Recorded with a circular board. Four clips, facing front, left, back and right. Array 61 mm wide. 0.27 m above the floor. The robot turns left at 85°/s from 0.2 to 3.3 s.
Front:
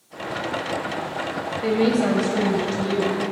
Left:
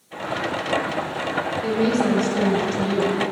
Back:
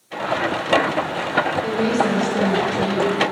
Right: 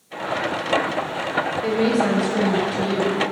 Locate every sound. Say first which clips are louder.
1.6 s a woman speaking: even, even; 15° right, 1.0 m; by 3.2 s 150° right, 1.0 m